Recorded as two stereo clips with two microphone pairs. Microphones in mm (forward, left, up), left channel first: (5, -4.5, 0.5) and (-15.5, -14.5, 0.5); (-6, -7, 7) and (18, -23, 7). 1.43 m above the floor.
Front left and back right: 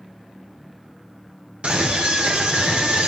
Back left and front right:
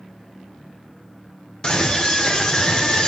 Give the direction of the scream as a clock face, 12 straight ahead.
5 o'clock.